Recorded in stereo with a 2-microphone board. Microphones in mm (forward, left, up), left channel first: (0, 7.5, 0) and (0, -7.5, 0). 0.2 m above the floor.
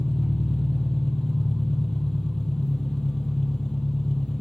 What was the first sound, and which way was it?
An engine running, 70° left (ahead or behind).